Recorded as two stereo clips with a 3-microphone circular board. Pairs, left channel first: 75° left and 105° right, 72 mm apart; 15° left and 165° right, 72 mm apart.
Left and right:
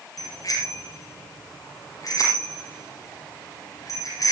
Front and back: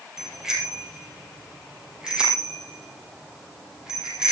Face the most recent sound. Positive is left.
turn(degrees=115)